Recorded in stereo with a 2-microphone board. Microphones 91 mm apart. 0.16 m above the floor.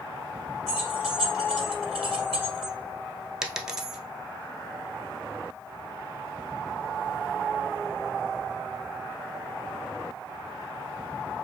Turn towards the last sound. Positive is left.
turn(degrees=-5)  # may be behind; listen again after turning